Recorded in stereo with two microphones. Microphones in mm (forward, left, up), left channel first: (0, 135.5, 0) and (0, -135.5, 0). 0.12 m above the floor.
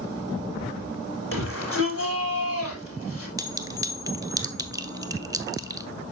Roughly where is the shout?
Left.